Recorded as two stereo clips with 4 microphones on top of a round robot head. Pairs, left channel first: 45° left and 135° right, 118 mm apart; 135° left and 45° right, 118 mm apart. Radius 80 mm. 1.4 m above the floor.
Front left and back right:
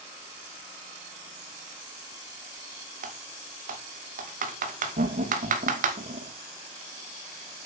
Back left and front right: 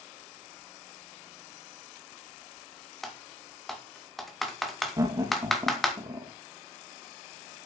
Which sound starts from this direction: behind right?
Typing on a keyboard, at 3.0 s.